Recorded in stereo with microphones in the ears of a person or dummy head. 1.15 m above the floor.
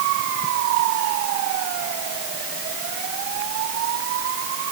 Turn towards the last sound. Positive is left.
No sound to turn to.